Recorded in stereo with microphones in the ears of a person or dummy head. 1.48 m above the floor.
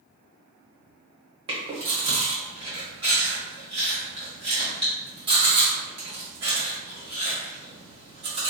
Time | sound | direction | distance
1.5 | chewing | 30° right (ahead or behind) | 1.1 m